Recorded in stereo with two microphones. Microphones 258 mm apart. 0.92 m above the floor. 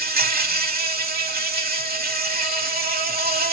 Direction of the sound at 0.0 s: 35° right (ahead or behind).